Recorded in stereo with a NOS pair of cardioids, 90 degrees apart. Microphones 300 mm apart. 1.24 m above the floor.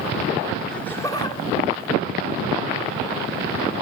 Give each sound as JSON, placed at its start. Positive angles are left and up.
{"t": 0.7, "sound": "laughter", "azimuth_deg": 0, "distance_m": 2.5}